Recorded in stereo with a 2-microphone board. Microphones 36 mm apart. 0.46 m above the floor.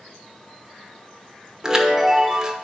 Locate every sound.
1.6 s a chime: 20° right (ahead or behind), 1.0 m